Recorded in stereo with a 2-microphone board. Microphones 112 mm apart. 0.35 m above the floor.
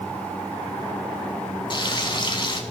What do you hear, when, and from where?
1.7 s frying: 40° left (ahead or behind), 0.8 m